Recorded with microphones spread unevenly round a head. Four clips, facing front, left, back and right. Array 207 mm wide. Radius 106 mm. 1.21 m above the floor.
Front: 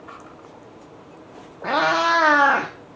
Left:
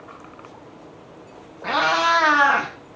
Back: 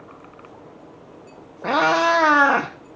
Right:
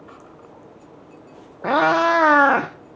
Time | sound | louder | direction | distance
1.6 | a cat meowing | right 3 dB, back 2 dB | 115° right | 0.7 m